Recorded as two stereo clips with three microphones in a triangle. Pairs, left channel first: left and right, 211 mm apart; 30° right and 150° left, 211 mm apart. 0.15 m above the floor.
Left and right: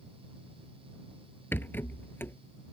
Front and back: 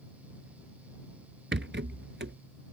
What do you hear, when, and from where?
1.5 s a rattle: 170° left